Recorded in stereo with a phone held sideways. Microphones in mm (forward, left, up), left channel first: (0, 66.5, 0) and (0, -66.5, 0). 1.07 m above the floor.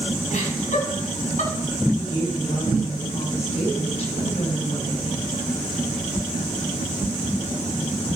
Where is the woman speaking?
50° left (ahead or behind), 7 m.